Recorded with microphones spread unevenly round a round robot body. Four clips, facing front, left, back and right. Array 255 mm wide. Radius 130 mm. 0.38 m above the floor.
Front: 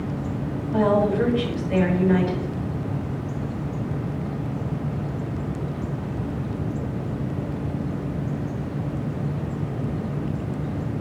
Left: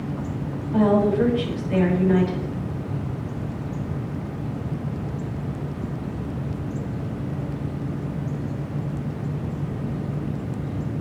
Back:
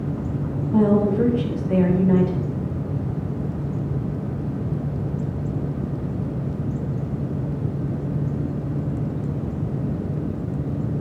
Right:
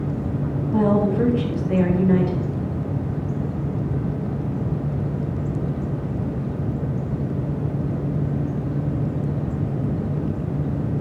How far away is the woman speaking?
About 3 m.